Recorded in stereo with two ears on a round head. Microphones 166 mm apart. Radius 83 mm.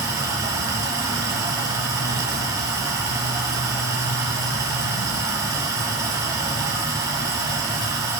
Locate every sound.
0.0 s running water: 20° right (ahead or behind), 5.5 m